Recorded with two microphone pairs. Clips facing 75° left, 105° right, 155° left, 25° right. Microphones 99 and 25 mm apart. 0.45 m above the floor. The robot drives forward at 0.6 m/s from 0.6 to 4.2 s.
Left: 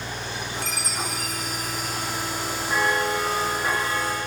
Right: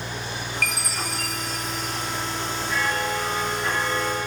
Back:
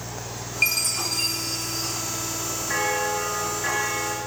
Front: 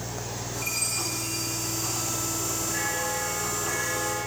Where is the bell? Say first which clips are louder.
Left 3 dB, back 7 dB; 115° left, 5 m; by 4.2 s 125° left, 5.5 m.